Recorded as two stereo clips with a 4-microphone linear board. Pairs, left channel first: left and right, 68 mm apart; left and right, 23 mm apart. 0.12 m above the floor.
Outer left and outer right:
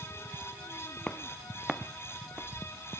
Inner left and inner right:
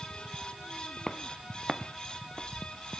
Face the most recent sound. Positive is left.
turn(degrees=-20)  # may be behind; listen again after turning